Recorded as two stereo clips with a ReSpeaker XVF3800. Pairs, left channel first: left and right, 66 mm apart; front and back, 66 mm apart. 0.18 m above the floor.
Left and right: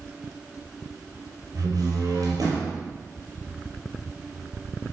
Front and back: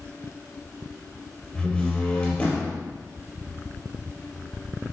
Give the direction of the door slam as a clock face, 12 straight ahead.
2 o'clock.